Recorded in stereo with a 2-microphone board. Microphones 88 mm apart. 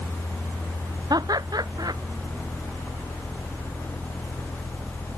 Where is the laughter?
50° right (ahead or behind).